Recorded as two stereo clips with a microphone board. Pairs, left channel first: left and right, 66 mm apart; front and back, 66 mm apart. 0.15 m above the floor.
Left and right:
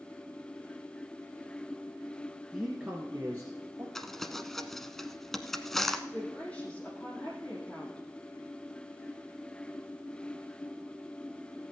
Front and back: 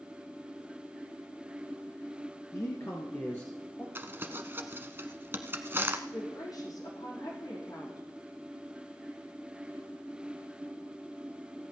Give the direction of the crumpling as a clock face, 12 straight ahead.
6 o'clock.